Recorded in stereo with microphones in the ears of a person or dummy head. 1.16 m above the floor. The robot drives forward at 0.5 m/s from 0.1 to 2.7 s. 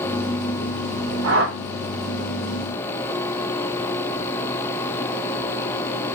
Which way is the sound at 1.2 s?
80° right.